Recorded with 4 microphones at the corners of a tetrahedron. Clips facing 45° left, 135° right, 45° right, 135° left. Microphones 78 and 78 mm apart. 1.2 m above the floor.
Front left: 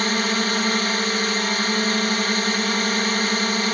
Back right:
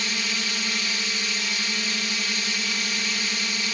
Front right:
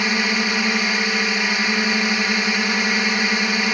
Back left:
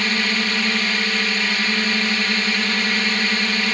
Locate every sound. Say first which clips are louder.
0.0 s a drone: front left 8 dB, front right 1 dB; 25° left